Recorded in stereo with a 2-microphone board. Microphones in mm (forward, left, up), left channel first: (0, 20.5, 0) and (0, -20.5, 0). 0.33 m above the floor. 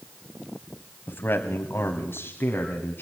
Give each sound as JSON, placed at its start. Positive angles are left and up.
{"t": 1.1, "sound": "a man speaking", "side_deg": 50, "distance_m": 1.9}